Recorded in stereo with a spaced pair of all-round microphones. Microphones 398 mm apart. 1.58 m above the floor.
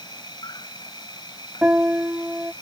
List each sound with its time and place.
0.0 s an insect: 10° left (ahead or behind)
1.6 s a piano: 5° right (ahead or behind)